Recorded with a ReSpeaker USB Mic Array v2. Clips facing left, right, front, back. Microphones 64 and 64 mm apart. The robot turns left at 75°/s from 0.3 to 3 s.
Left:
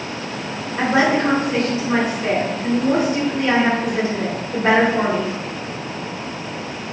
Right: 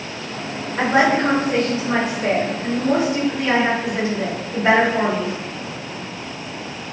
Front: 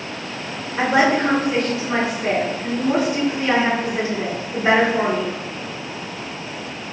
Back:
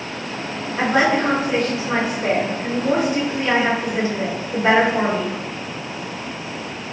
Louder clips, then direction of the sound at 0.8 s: Right 1 dB, front 1 dB; 55° right.